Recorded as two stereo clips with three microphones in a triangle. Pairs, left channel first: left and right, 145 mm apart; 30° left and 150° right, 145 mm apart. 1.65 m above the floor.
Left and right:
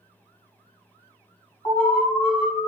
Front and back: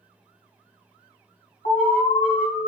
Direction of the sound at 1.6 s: 25° left.